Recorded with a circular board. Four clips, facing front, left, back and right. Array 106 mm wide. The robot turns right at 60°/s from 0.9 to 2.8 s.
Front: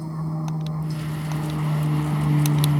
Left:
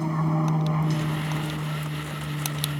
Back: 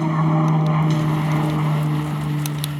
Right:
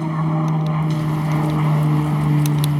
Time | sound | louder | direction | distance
0.0 | an aircraft | right 4 dB, back 11 dB | 165° right | ?